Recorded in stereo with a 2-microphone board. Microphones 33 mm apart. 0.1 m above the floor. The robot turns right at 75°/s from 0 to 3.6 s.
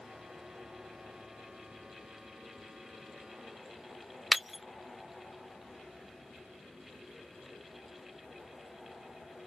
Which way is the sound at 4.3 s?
10° right (ahead or behind).